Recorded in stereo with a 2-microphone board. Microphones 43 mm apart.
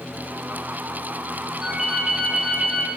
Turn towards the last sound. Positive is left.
turn(degrees=-10)  # may be behind; listen again after turning